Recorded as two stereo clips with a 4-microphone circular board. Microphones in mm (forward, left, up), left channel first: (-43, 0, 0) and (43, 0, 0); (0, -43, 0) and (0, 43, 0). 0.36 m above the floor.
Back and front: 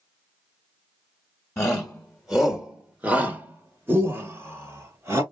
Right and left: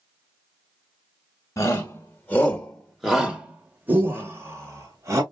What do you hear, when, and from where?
1.6 s a shout: 105° right, 1.0 m; by 5.2 s 50° left, 1.6 m